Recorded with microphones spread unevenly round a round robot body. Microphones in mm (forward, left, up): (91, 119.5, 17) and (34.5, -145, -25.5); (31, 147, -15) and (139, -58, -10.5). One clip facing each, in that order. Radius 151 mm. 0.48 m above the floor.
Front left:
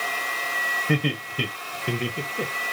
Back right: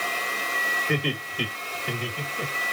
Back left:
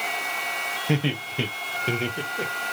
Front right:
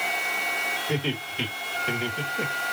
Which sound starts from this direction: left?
Laughter, at 0.9 s.